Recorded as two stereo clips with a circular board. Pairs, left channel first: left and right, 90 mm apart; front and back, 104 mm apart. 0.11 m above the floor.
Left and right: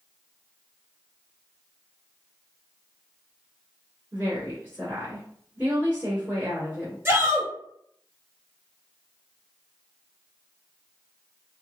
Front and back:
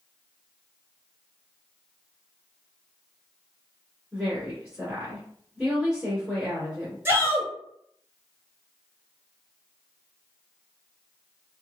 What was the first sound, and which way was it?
A woman speaking, 105° right.